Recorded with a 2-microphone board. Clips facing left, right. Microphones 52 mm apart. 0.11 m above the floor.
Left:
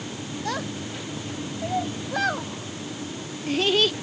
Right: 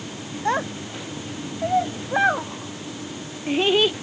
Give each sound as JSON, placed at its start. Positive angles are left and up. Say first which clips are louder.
{"t": 0.5, "sound": "a child speaking", "louder": "right 7 dB", "side_deg": -25}